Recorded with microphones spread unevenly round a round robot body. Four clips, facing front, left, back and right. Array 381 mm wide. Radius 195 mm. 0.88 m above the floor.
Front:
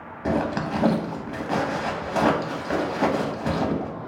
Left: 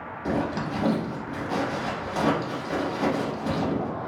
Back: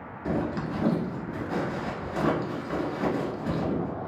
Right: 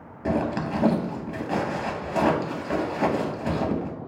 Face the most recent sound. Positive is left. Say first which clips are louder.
# right 2 dB, front 5 dB
turn(degrees=-20)